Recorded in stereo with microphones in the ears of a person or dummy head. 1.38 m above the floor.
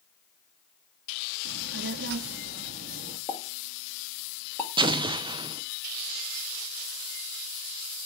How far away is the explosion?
About 0.9 m.